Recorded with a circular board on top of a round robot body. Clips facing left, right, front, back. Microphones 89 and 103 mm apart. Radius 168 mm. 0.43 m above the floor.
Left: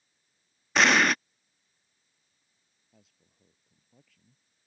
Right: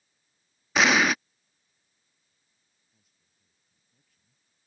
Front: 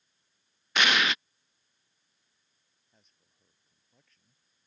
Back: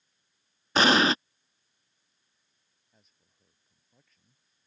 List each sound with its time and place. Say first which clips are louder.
0.8 s an explosion: right 1 dB, back 5 dB; 175° right
2.9 s a man speaking: left 14 dB, back 1 dB; 90° left